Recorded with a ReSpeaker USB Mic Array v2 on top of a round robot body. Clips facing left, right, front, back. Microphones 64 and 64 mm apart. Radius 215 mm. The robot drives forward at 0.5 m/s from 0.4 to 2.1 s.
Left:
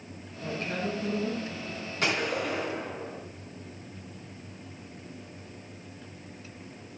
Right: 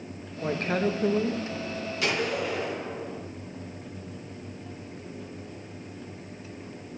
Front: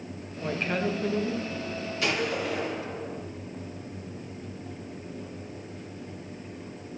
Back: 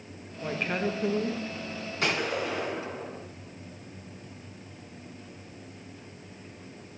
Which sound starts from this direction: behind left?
A gunshot, at 2.0 s.